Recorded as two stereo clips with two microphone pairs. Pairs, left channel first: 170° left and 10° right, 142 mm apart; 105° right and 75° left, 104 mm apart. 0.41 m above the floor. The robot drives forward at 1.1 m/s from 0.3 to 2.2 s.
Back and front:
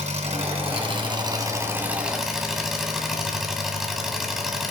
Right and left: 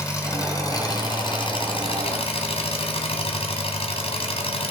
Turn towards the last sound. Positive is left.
turn(degrees=-95)